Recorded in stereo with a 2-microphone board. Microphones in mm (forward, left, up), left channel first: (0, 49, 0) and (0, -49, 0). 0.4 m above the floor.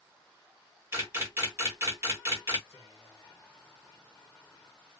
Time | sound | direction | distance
0.9 | a camera shutter | 25° right (ahead or behind) | 1.3 m
2.7 | whispering | 30° left (ahead or behind) | 0.8 m